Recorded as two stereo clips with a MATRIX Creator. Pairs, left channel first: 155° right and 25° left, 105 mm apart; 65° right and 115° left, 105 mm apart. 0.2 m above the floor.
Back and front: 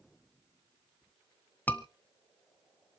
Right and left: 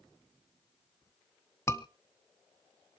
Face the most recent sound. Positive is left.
turn(degrees=-100)